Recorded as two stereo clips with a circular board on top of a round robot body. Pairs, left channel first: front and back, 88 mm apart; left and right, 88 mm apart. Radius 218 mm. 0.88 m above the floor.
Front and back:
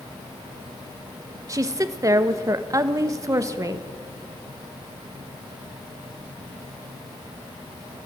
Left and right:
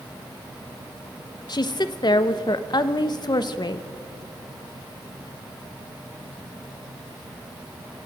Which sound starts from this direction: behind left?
A woman speaking, at 1.5 s.